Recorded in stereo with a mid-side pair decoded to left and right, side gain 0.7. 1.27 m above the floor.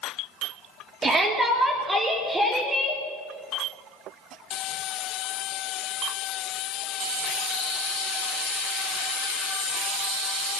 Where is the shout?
20° right, 3 m; by 3.0 s 10° right, 4 m.